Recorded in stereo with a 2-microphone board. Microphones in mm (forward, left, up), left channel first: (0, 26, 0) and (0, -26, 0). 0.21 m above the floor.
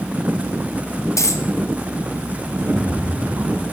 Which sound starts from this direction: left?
A dropped coin, at 1.2 s.